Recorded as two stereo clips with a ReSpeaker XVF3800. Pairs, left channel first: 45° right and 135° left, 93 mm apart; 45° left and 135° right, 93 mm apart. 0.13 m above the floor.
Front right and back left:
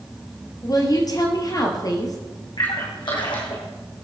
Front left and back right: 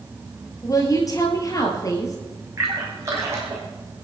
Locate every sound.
0.6 s a woman speaking: straight ahead, 2.5 m
2.6 s a splash: 75° right, 3.5 m